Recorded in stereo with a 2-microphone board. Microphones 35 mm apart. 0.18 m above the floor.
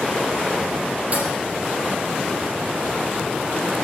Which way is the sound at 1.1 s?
40° right (ahead or behind).